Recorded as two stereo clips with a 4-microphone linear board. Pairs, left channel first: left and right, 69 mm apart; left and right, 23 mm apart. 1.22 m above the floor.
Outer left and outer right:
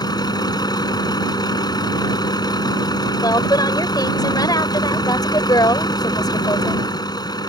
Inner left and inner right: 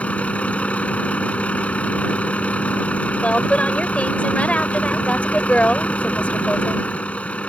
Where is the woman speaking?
75° left (ahead or behind).